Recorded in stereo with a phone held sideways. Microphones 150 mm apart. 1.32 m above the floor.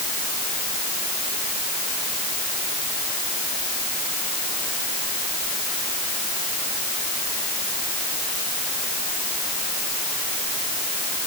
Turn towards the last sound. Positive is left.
No sound to turn to.